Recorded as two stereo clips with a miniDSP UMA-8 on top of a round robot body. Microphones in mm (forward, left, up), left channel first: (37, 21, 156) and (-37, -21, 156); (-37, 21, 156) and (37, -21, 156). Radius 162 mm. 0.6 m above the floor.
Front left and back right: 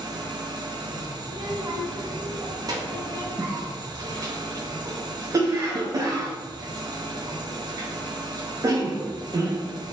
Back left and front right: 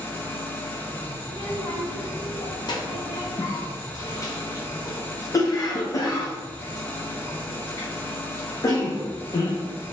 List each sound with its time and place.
0.0 s an engine running: 150° right, 0.8 m
1.2 s a child speaking: 175° left, 1.1 m
3.4 s a cough: straight behind, 0.7 m